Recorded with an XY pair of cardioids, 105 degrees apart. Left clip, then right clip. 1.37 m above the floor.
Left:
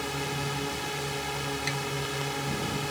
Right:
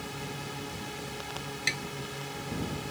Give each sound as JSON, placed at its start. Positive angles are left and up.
{"t": 0.0, "sound": "a drone", "azimuth_deg": 45}
{"t": 1.7, "sound": "tapping", "azimuth_deg": -30}